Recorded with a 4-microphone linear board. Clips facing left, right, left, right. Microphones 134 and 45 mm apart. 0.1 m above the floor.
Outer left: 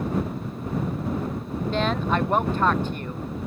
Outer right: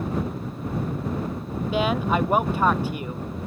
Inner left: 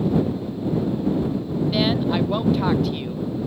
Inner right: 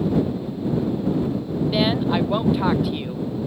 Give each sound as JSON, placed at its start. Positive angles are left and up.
{"t": 1.7, "sound": "a woman speaking", "side_deg": -10}